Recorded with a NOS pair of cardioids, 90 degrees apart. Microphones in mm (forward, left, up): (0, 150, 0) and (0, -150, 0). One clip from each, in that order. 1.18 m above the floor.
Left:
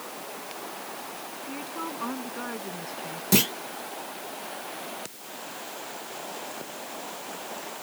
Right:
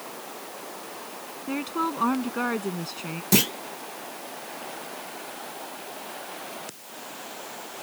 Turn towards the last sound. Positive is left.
turn(degrees=-5)